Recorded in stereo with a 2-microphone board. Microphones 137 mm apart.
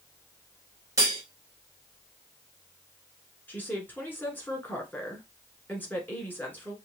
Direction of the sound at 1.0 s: 25° right (ahead or behind).